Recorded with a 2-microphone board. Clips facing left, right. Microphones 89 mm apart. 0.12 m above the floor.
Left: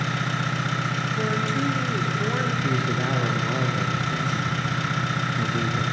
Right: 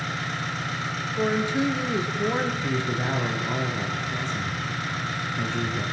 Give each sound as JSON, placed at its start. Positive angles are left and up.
{"t": 0.0, "sound": "an engine running", "side_deg": 70, "distance_m": 7.0}
{"t": 1.2, "sound": "a woman speaking", "side_deg": -15, "distance_m": 3.0}
{"t": 2.6, "sound": "a man speaking", "side_deg": 10, "distance_m": 3.0}